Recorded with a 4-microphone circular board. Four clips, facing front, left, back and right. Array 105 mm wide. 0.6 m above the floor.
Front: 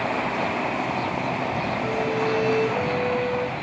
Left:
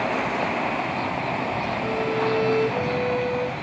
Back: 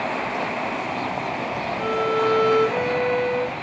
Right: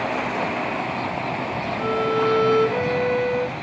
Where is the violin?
120° right, 1.6 m.